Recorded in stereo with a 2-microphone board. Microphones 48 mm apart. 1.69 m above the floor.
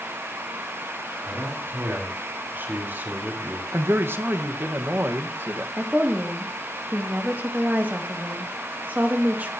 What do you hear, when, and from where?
1.2 s a man speaking: 60° right (ahead or behind), 5 m; by 3.6 s 45° right (ahead or behind), 4.5 m
3.7 s a man speaking: 55° right (ahead or behind), 1.6 m
5.8 s a woman speaking: 40° right (ahead or behind), 2.5 m